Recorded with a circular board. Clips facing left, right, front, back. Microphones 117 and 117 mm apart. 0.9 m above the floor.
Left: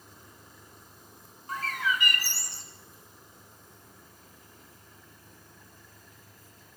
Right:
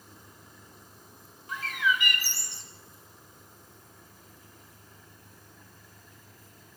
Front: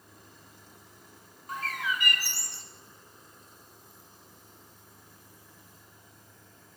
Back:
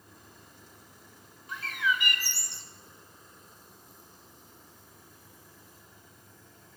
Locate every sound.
1.5 s a bird: 45° left, 2 m